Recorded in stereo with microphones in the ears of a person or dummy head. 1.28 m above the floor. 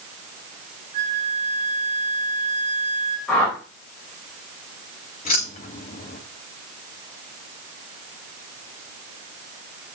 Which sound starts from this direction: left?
Keys jangling, at 5.2 s.